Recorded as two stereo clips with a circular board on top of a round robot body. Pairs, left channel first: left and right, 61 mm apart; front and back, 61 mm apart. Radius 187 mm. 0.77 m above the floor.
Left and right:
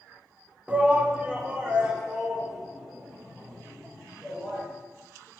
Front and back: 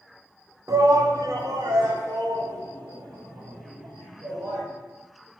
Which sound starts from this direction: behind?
A shout, at 0.7 s.